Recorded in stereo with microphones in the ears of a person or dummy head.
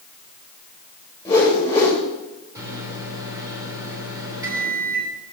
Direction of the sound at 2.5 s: 15° right (ahead or behind).